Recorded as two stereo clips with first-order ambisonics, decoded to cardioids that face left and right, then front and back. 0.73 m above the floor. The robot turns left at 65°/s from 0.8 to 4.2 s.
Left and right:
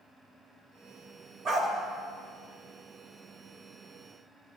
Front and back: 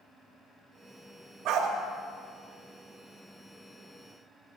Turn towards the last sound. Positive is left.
turn(degrees=35)